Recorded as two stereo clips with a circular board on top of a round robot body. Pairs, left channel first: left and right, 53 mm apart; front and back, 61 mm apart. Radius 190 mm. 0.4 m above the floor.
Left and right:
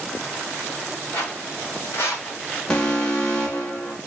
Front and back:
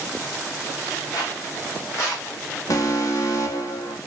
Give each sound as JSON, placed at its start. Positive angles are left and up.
{"t": 1.1, "sound": "footsteps", "azimuth_deg": 25, "distance_m": 1.1}
{"t": 2.7, "sound": "an alarm", "azimuth_deg": 20, "distance_m": 1.5}